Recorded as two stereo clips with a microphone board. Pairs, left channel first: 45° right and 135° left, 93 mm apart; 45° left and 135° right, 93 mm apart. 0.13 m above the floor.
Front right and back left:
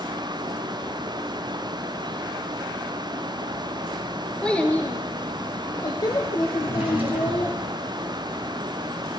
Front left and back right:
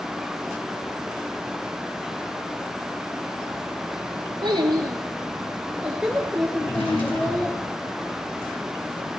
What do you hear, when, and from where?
4.4 s a child speaking: 125° right, 1.4 m; by 7.5 s 20° right, 1.9 m
6.6 s a drawer: 65° left, 2 m